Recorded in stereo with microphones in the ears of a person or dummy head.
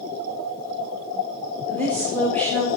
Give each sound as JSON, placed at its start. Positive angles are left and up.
{"t": 1.7, "sound": "a woman speaking", "side_deg": 10, "distance_m": 1.4}